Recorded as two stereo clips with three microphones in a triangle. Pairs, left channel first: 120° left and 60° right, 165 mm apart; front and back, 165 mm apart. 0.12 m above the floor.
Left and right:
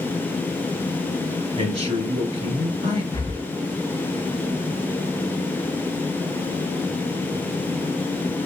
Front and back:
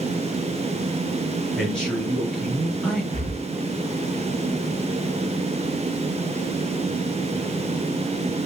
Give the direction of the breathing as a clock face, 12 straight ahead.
6 o'clock.